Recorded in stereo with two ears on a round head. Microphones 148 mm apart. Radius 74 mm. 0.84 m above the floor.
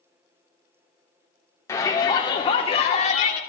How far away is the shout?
About 1.8 m.